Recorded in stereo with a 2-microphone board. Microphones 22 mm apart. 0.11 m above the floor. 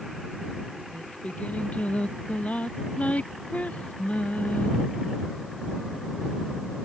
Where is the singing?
90° left.